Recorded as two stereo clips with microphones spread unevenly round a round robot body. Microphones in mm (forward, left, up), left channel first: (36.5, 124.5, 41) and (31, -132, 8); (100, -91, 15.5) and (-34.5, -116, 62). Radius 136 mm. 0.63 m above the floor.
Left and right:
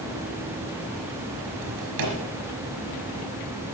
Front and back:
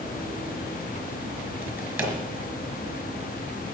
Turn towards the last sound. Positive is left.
turn(degrees=-100)